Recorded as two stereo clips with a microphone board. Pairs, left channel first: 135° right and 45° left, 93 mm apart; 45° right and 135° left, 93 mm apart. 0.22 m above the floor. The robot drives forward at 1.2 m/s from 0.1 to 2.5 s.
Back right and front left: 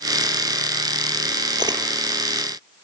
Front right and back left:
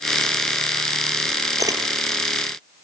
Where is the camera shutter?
85° left, 4 m.